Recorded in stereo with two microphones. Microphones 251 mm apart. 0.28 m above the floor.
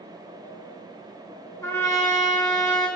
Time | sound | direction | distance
1.6 | a trumpet | 10° left (ahead or behind) | 2.5 m